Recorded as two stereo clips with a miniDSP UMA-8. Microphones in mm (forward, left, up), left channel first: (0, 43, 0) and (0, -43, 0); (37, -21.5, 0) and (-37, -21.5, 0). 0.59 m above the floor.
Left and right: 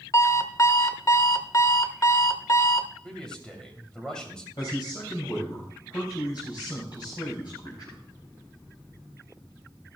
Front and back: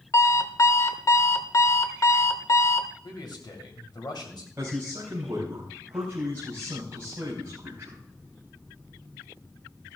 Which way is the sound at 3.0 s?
10° left.